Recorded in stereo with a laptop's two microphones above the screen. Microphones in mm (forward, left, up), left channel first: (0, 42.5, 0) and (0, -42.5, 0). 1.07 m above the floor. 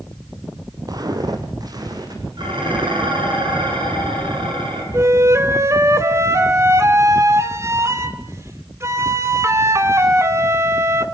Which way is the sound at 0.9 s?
50° right (ahead or behind).